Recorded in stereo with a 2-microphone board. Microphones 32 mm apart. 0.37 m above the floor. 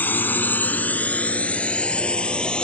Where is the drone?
70° left (ahead or behind); by 2.6 s 30° left (ahead or behind).